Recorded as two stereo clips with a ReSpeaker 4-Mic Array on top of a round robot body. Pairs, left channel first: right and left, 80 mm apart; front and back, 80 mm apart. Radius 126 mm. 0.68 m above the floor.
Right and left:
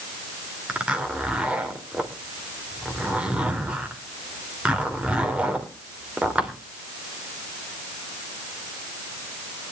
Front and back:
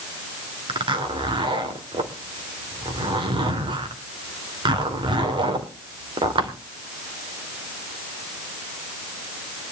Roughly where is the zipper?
Behind.